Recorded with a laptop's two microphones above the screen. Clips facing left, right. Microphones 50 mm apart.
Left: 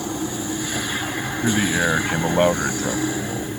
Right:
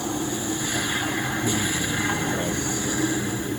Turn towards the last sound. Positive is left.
turn(degrees=85)